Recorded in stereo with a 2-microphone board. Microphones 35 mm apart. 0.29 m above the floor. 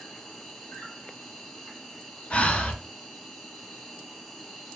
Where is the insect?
10° left (ahead or behind), 1.4 m.